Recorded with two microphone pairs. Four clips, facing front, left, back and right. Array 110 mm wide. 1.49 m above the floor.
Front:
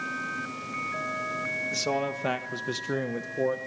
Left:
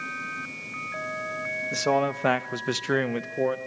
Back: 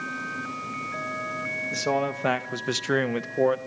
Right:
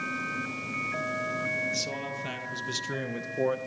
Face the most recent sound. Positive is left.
turn(degrees=-175)